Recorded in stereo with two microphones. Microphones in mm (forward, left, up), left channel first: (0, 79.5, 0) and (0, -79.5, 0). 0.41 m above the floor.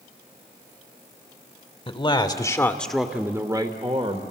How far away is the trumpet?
No trumpet in this recording.